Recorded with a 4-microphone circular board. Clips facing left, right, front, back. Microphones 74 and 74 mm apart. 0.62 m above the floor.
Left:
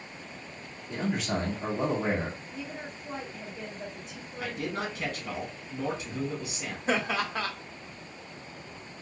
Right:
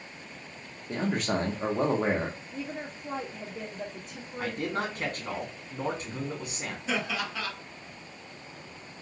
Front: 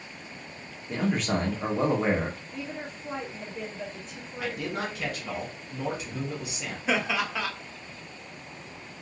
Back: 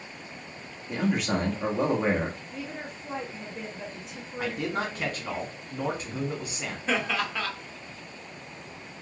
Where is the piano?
I don't hear a piano.